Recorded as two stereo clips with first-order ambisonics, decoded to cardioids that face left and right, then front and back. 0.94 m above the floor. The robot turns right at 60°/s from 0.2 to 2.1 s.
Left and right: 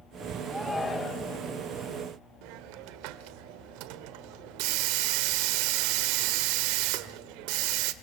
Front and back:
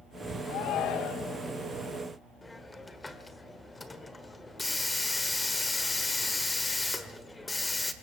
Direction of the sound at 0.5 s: 10° right.